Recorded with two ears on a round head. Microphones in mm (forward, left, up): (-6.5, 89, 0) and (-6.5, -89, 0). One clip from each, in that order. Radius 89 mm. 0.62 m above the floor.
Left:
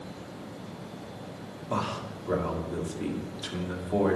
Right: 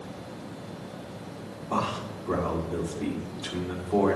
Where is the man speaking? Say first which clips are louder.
Right 2 dB; 50° left (ahead or behind), 1.6 m.